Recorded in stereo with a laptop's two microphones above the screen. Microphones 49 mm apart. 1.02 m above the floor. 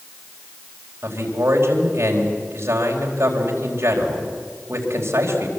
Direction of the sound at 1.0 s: 65° right (ahead or behind).